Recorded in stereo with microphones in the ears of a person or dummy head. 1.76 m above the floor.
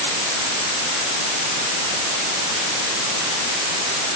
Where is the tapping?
No tapping in this recording.